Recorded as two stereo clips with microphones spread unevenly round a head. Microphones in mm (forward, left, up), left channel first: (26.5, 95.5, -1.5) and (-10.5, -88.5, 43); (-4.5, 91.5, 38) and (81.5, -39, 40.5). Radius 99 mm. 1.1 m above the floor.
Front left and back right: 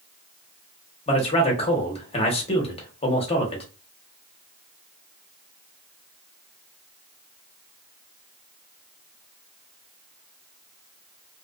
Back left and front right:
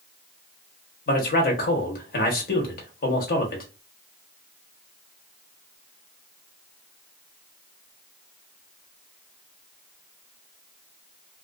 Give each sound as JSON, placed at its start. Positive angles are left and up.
{"t": 1.1, "sound": "a man speaking", "azimuth_deg": 125, "distance_m": 1.2}